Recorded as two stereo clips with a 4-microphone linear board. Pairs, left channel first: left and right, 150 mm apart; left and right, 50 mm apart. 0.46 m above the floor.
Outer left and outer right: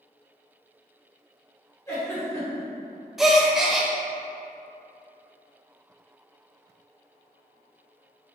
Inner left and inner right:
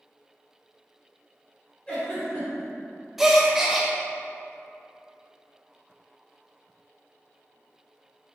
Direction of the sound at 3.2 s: 5° right (ahead or behind).